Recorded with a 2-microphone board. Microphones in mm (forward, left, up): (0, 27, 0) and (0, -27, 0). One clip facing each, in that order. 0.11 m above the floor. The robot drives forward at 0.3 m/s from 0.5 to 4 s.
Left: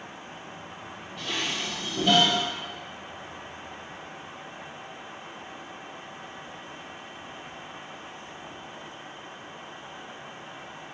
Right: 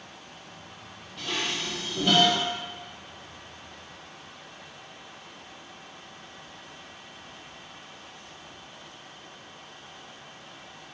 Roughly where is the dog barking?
No dog barking in this recording.